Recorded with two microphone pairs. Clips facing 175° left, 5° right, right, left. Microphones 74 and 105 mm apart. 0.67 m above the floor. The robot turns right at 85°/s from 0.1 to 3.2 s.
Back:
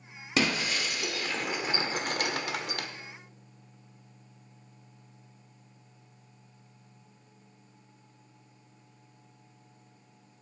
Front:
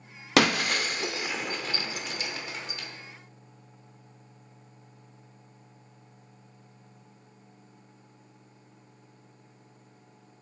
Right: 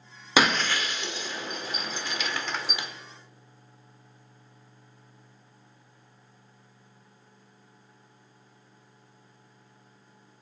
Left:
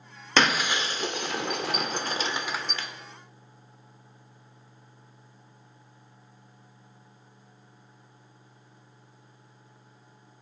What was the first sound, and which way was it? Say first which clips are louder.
Breaking glass: front 5 dB, right 1 dB; 10° right.